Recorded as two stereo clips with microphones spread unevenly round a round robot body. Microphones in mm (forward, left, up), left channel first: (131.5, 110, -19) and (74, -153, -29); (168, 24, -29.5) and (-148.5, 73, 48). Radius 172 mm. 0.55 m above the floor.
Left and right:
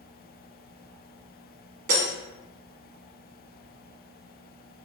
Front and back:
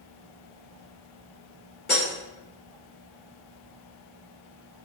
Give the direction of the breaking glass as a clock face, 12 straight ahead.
3 o'clock.